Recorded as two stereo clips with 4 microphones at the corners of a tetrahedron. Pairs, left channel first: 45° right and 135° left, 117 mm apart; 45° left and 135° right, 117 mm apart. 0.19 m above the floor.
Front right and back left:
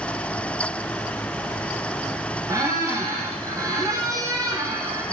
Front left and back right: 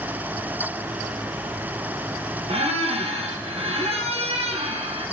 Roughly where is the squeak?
Behind.